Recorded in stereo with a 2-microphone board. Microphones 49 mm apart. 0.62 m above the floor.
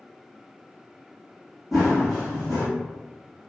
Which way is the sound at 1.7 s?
5° right (ahead or behind).